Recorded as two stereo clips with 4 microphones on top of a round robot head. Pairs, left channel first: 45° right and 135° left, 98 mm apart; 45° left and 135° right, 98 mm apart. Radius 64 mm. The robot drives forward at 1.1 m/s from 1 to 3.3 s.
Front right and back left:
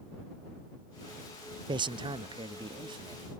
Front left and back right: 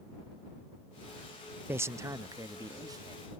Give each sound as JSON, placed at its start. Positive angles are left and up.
{"t": 1.7, "sound": "a man speaking", "azimuth_deg": 160}